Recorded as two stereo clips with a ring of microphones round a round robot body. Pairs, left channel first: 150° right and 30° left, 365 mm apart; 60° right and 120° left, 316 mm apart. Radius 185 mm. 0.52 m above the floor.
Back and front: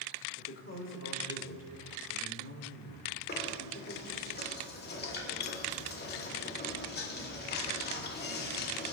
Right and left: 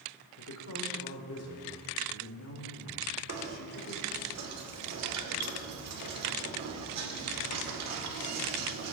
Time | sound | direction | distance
0.4 | a woman speaking | 100° right | 1.8 m
3.3 | knocking | 150° left | 1.4 m